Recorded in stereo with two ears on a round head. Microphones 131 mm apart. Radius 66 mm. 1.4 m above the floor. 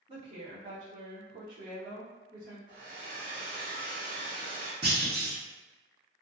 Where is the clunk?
30° right (ahead or behind), 1.2 m.